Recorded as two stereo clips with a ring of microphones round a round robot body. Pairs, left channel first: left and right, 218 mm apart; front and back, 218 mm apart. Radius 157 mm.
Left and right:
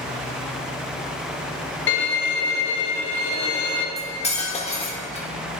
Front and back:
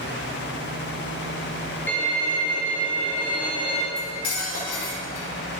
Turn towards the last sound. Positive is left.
turn(degrees=25)